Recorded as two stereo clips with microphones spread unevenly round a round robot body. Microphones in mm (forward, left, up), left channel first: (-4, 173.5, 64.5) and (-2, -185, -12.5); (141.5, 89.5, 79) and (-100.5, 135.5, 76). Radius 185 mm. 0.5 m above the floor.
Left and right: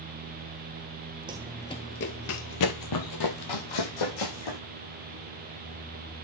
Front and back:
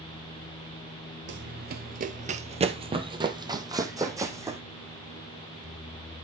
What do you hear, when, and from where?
1.3 s running footsteps: 175° right, 0.5 m; by 4.6 s 90° left, 1.8 m